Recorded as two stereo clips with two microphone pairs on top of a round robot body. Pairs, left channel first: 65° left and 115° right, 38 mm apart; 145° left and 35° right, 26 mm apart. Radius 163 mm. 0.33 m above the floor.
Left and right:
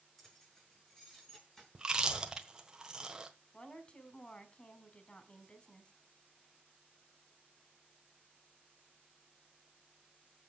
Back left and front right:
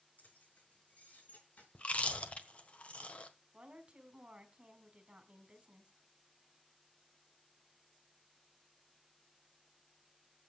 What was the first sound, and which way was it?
Keys jangling, 140° left.